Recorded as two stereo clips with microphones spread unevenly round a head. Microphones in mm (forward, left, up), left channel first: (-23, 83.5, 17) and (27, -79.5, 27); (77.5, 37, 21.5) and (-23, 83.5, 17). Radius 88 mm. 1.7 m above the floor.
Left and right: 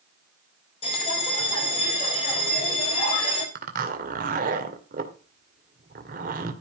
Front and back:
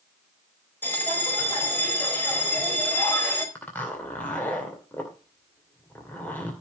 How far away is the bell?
About 4 m.